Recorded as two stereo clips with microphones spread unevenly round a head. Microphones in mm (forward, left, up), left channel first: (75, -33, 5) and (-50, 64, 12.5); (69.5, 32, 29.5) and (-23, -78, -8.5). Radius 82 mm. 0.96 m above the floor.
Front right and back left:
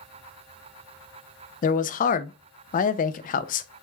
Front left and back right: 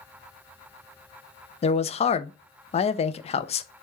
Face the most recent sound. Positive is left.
turn(degrees=-5)